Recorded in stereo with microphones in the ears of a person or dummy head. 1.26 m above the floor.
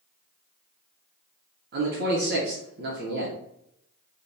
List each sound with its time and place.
1.7 s a man speaking: 50° right (ahead or behind), 0.7 m